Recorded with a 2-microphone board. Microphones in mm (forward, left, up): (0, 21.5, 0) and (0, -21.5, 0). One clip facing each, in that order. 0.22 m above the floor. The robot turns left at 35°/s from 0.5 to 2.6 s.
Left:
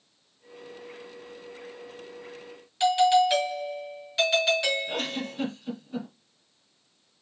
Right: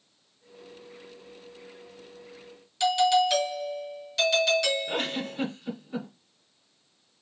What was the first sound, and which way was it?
A doorbell, 20° left (ahead or behind).